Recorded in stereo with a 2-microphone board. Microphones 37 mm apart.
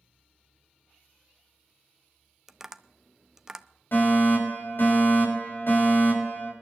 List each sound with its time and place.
2.5 s tapping: 10° right (ahead or behind), 0.5 m
3.9 s a fire alarm: 65° left (ahead or behind), 6 m